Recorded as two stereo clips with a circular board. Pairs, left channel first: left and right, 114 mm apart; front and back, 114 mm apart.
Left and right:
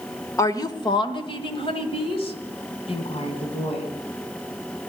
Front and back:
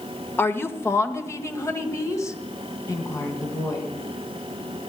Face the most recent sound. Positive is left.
turn(degrees=60)